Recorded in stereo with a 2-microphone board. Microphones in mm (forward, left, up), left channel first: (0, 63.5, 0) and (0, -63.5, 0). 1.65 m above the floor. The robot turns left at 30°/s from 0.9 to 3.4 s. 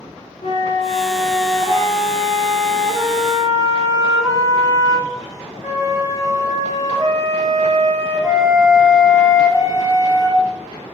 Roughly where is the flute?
Ahead left.